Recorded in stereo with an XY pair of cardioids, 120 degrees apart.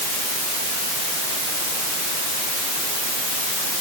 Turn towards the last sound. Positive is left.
No sound to turn to.